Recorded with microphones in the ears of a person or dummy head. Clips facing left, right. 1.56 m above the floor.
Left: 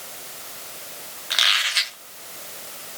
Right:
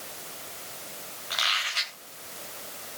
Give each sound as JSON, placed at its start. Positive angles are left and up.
{"t": 1.3, "sound": "a squeak", "side_deg": 25, "distance_m": 0.9}